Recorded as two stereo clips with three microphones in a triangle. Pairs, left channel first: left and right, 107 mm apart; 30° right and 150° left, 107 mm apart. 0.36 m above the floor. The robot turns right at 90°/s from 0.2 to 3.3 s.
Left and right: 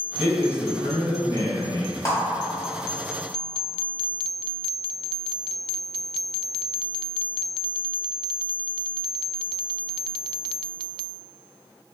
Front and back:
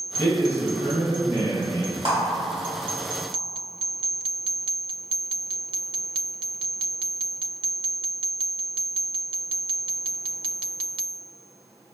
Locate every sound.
0.2 s a man speaking: 10° right, 1.9 m; by 1.9 s 150° left, 1.9 m
2.0 s a clap: 145° left, 1.4 m; by 2.1 s 155° left, 1.4 m